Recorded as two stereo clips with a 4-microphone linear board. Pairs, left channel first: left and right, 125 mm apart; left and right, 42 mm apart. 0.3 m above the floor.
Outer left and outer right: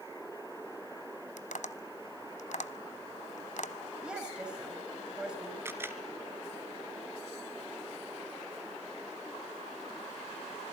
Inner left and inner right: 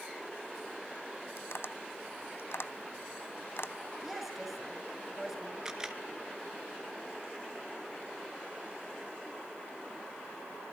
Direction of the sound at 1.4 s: 70° left (ahead or behind).